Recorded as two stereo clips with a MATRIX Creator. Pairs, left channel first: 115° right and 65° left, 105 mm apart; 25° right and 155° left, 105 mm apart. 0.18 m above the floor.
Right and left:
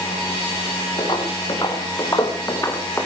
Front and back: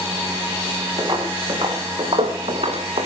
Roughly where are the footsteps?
Behind right.